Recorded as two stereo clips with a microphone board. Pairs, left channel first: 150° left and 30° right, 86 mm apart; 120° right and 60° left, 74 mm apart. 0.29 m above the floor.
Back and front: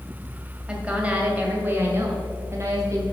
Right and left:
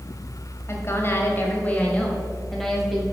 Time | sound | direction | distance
0.7 | a woman speaking | 100° right | 1.8 m